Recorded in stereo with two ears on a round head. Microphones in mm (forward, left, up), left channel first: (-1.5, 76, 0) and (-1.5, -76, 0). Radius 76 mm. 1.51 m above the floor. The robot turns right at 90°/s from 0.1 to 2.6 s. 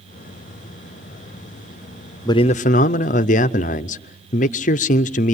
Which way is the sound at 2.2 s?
25° left.